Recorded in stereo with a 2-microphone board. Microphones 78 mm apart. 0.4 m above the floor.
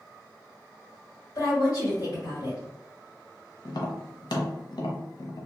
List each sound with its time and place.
1.4 s a woman speaking: 50° left (ahead or behind), 1.5 m
3.6 s tapping: 70° left (ahead or behind), 0.7 m